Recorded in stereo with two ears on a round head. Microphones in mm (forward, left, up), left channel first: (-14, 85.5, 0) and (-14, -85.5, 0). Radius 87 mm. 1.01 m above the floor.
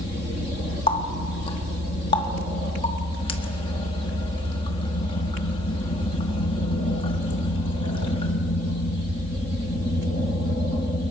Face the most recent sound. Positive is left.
turn(degrees=25)  # may be behind; listen again after turning